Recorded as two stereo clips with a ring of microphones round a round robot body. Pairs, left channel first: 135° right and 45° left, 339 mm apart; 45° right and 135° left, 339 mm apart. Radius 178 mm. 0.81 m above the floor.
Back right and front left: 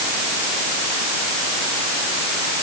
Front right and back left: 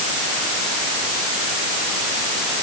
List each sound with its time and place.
Only background noise.